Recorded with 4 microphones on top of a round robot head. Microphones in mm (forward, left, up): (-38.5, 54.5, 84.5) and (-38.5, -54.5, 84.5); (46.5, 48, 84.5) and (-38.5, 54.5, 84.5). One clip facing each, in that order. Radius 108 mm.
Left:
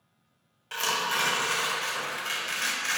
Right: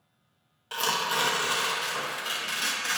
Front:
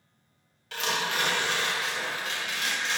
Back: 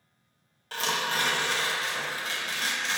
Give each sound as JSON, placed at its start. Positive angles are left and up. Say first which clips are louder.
{"t": 0.7, "sound": "tearing paper", "louder": "right 1 dB, even", "azimuth_deg": -155, "distance_m": 0.6}